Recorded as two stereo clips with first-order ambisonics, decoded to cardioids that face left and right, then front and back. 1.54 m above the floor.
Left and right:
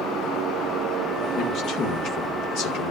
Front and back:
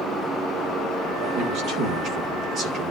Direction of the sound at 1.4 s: 140° left.